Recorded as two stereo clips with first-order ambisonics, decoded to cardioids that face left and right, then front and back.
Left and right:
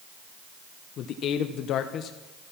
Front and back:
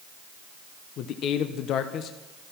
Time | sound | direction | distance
1.0 | a man speaking | 45° left | 0.9 m